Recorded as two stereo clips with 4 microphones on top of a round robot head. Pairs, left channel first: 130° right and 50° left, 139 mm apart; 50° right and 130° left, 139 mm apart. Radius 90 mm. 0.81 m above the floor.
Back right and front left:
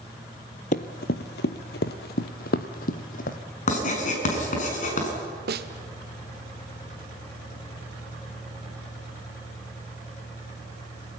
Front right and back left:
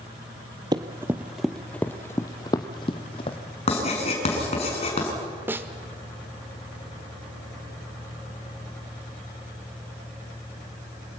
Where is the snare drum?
55° left, 1.3 m.